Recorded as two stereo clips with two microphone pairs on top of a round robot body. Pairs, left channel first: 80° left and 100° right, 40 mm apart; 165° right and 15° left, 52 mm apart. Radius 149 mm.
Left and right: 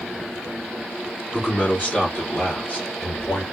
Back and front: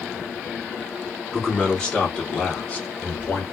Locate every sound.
1.3 s a man speaking: 90° left, 1.2 m; by 3.4 s 130° left, 1.7 m